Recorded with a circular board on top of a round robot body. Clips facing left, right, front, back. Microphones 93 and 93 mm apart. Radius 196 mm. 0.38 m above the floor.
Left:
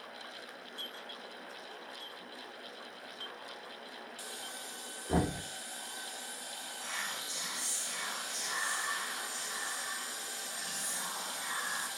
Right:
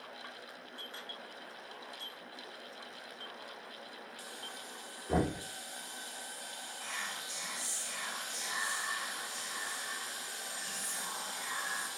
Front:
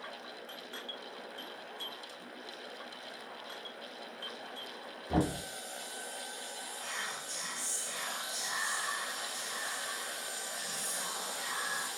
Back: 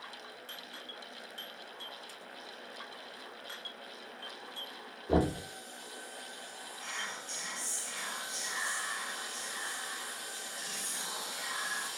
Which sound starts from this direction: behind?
Knocking, at 5.1 s.